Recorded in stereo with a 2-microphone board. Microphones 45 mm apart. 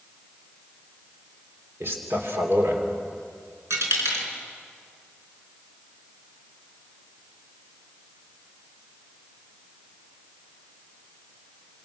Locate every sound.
1.8 s a man speaking: 60° right (ahead or behind), 3 m
3.7 s a dropped coin: 85° right, 4.5 m